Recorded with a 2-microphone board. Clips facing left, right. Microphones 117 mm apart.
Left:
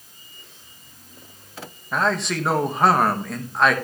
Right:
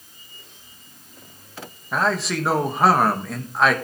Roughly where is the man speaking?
Centre.